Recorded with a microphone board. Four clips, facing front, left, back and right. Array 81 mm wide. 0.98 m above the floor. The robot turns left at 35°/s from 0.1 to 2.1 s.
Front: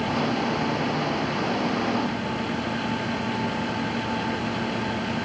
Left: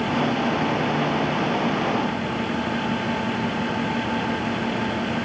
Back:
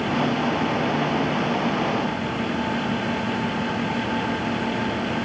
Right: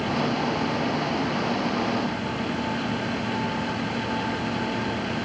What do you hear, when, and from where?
Only background noise.